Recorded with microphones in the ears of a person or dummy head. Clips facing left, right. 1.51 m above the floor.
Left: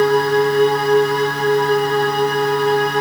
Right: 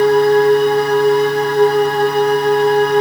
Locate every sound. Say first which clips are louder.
0.0 s a machine running: right 4 dB; 40° right (ahead or behind), 5.5 m